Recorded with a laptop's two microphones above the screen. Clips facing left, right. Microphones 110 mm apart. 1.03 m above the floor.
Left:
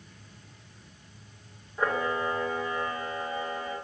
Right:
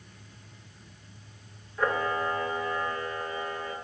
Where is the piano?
I don't hear a piano.